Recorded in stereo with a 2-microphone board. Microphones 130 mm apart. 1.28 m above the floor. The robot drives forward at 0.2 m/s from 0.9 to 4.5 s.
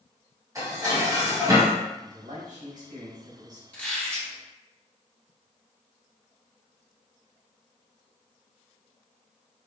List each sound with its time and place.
0.6 s dishes clattering: 25° right (ahead or behind), 1.2 m; by 1.8 s 30° right (ahead or behind), 1.0 m
2.0 s a man speaking: 85° right, 1.5 m; by 3.6 s 75° right (ahead or behind), 1.6 m
3.7 s a squeak: 10° left (ahead or behind), 1.2 m